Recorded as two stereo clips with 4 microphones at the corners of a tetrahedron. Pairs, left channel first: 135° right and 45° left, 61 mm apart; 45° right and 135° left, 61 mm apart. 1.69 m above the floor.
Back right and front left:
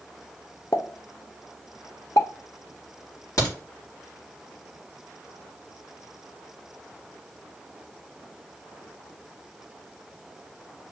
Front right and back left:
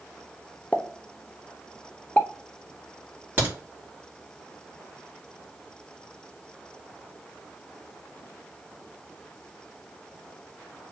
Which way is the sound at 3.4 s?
165° right.